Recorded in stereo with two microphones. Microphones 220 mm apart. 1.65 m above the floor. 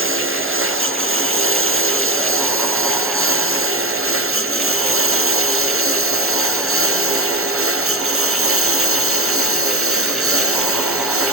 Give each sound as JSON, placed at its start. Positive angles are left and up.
{"t": 0.0, "sound": "a lawn mower", "side_deg": -70}